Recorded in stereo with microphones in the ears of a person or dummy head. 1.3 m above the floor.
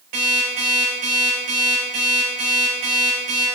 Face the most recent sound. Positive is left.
turn(degrees=-45)  # may be behind; listen again after turning